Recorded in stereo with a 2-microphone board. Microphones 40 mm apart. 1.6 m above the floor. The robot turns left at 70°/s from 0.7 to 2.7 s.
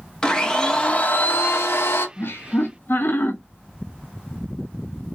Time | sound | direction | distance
0.2 | a blender | 160° left | 0.7 m
2.2 | laughter | 100° left | 0.7 m